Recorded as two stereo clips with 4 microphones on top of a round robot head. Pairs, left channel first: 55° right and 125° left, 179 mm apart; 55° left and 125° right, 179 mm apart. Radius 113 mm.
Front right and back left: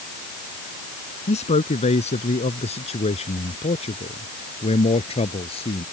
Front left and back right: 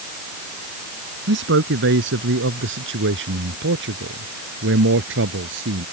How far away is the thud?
I don't hear a thud.